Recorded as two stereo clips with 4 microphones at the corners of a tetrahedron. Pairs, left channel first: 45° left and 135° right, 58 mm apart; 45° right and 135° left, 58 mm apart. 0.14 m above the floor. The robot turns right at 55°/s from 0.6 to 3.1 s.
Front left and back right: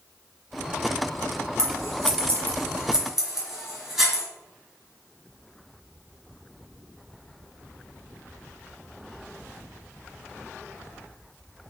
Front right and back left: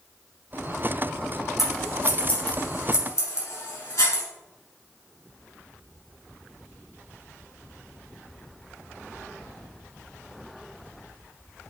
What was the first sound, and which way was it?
Scissors, 135° right.